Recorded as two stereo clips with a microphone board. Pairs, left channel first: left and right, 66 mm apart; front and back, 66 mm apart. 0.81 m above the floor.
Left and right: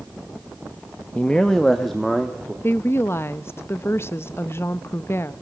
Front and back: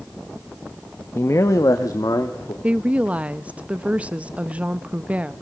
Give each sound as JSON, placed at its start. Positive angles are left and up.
{"t": 1.1, "sound": "a man speaking", "azimuth_deg": 25, "distance_m": 0.8}
{"t": 2.6, "sound": "a woman speaking", "azimuth_deg": 120, "distance_m": 0.5}